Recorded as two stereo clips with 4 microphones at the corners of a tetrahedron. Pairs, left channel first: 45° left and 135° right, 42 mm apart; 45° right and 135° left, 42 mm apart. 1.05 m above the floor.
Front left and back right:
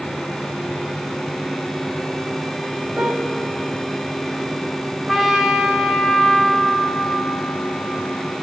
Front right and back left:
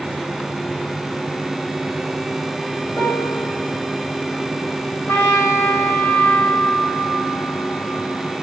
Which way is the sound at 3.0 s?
80° right.